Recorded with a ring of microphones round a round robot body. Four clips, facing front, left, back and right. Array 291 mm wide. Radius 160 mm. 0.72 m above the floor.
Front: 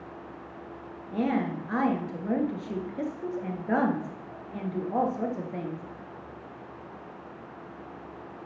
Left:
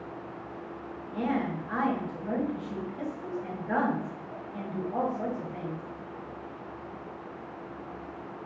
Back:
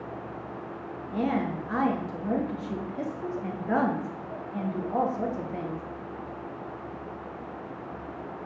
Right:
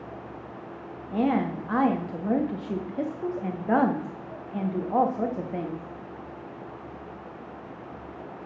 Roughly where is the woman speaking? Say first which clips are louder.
Right 5 dB, even; right.